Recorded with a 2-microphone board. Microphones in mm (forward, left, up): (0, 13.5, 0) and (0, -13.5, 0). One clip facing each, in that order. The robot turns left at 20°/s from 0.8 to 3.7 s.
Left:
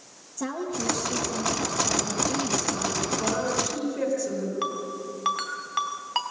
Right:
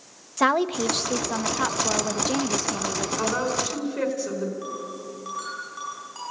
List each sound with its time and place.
0.4 s a woman speaking: 85° right, 1.1 m; by 3.1 s 130° right, 1.1 m
3.2 s a woman speaking: 40° right (ahead or behind), 4.5 m; by 4.5 s 30° right (ahead or behind), 4.5 m
4.6 s a ringtone: 55° left (ahead or behind), 3.5 m